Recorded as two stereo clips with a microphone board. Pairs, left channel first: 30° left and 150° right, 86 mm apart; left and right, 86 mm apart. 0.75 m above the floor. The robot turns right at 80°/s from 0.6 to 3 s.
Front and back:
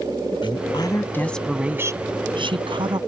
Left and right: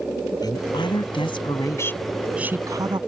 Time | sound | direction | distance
0.4 | a woman speaking | 50° left | ?